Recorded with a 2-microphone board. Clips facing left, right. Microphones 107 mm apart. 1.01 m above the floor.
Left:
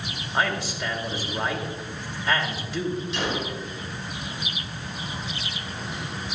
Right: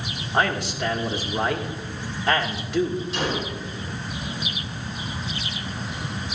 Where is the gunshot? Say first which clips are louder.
Right 1 dB; 40° right (ahead or behind), 3.5 m.